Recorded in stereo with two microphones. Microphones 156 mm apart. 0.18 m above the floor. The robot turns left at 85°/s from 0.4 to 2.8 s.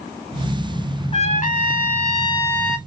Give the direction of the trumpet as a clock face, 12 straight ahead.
7 o'clock.